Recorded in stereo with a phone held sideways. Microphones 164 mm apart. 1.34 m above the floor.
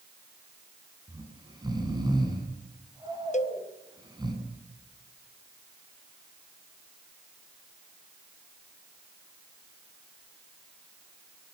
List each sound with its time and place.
1.1 s snoring: 25° right (ahead or behind), 7 m
3.3 s a cowbell: 45° left (ahead or behind), 0.9 m